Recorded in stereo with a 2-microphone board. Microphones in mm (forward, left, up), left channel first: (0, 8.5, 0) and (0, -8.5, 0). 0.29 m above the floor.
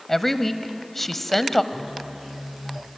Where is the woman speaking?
15° left (ahead or behind), 1.1 m.